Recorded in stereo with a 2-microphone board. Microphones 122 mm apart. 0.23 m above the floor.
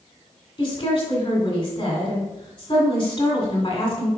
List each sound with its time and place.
0.6 s a woman speaking: 35° left (ahead or behind), 2 m